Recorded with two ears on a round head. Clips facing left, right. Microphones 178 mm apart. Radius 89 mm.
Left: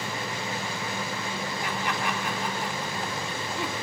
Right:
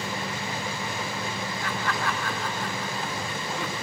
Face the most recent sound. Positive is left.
turn(degrees=15)  # may be behind; listen again after turning